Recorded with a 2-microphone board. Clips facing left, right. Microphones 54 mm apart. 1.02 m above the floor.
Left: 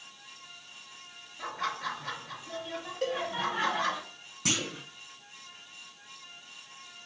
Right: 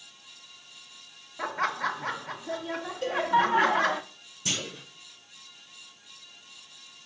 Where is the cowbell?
70° left (ahead or behind), 2.5 m.